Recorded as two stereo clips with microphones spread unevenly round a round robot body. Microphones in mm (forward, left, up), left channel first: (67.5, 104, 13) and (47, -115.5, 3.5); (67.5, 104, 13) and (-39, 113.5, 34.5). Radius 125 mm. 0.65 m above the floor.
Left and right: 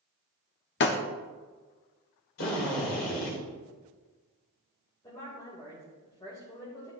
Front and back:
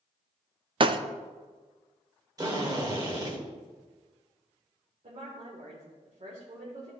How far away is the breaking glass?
About 0.6 m.